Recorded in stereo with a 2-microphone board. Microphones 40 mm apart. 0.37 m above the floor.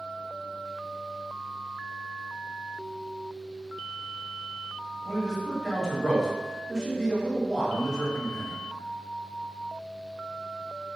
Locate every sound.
5.0 s a man speaking: 5° left (ahead or behind), 1.6 m